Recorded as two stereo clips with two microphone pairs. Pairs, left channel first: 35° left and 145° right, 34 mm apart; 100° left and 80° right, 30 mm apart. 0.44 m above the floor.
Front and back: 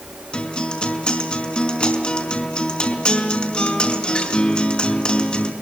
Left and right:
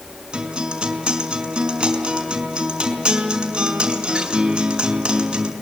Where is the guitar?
25° right, 5 m.